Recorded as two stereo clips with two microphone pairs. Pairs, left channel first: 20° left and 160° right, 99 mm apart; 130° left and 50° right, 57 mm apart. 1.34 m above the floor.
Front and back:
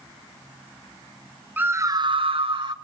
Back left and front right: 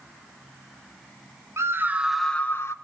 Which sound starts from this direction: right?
A scream, at 1.6 s.